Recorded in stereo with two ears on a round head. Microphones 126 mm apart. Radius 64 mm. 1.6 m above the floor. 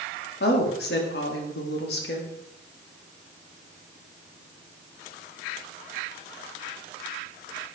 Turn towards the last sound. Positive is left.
turn(degrees=90)